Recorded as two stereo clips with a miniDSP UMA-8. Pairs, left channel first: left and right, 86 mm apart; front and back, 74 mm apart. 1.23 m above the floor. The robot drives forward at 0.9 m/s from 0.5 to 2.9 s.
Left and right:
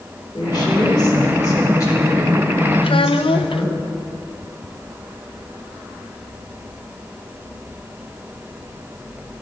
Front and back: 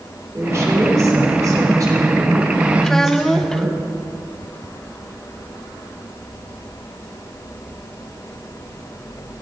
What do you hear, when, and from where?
0.3 s a woman speaking: 125° left, 4 m; by 3.8 s 145° left, 5.5 m
2.8 s a child speaking: 80° left, 0.8 m; by 3.7 s 85° left, 0.8 m